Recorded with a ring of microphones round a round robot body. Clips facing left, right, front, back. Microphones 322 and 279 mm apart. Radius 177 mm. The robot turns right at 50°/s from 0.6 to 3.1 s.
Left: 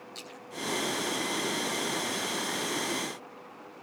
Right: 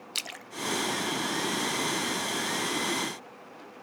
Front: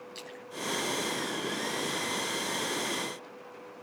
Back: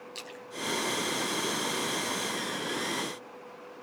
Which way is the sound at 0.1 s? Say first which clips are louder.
Even, back 1 dB; 100° right.